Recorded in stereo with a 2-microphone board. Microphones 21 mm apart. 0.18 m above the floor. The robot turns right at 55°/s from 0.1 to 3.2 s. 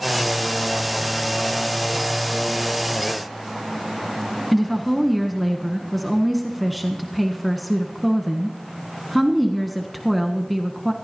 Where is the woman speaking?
Centre (ahead or behind), 1.4 m.